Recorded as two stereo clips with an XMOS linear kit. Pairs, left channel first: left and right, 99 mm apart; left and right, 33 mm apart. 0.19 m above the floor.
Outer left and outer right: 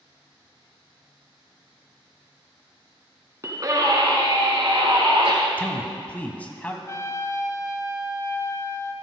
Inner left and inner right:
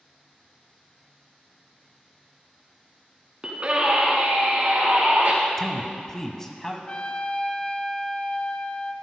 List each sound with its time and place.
3.4 s a scream: 30° right (ahead or behind), 1.9 m; by 5.3 s 60° right (ahead or behind), 4 m
5.6 s a man speaking: 15° left (ahead or behind), 1.3 m
6.9 s a trumpet: 30° left (ahead or behind), 0.7 m